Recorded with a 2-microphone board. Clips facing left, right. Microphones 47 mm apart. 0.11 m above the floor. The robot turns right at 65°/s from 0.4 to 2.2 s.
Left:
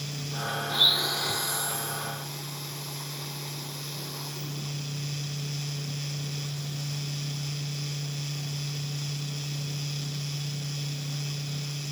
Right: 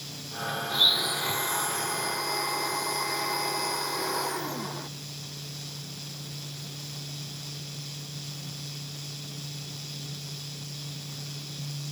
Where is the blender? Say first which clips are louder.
Even; 165° left; by 4.9 s 95° right.